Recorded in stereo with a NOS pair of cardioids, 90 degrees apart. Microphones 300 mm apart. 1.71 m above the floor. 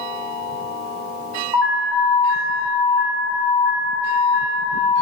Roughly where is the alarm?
Ahead.